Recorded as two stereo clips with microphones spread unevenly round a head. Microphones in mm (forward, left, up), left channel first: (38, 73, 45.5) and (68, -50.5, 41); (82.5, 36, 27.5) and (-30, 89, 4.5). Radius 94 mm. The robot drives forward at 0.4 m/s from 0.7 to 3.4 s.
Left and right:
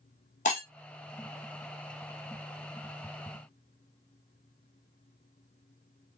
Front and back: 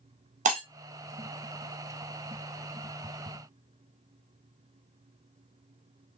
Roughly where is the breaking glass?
Behind left.